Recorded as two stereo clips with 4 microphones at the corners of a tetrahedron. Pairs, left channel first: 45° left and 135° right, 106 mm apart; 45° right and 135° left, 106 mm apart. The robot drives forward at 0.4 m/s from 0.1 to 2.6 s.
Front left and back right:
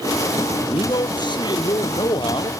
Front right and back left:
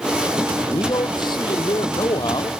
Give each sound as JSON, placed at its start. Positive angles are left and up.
{"t": 0.7, "sound": "a man speaking", "azimuth_deg": 0}